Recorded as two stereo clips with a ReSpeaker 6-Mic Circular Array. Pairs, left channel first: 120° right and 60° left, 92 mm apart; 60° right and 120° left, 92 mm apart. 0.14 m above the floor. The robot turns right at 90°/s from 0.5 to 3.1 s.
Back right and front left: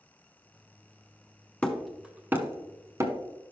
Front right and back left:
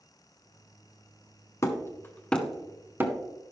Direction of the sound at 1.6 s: 55° right.